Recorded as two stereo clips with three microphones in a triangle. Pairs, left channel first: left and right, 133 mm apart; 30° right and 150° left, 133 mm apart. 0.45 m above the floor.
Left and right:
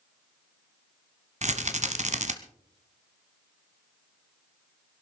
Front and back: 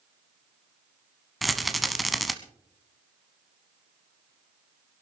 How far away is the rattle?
About 1.1 m.